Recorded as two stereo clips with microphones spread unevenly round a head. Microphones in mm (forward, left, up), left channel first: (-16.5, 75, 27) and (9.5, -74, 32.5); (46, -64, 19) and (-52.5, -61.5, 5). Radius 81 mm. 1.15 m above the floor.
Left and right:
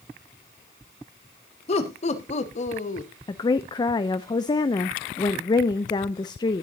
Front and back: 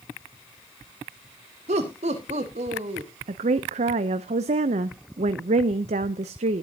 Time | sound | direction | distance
1.7 | laughter | 150° left | 2 m
3.3 | a woman speaking | 165° left | 0.5 m